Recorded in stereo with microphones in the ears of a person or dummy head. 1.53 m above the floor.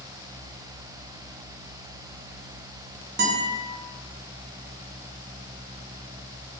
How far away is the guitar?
About 0.5 m.